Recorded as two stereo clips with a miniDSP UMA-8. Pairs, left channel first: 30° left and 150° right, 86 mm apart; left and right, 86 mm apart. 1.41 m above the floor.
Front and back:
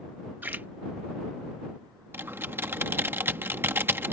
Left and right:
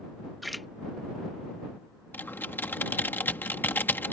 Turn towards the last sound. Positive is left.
turn(degrees=150)